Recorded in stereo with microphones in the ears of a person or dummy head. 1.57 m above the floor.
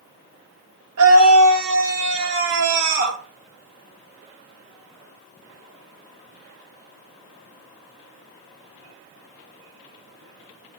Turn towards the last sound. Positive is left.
turn(degrees=-55)  # may be behind; listen again after turning